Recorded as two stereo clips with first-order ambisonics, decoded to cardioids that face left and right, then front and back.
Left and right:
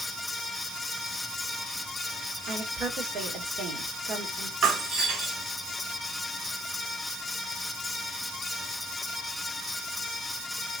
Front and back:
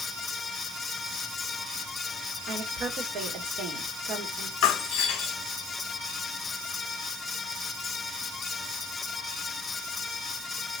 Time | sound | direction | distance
2.5 | a woman speaking | 140° right | 1.8 m
4.6 | breaking glass | 40° right | 2 m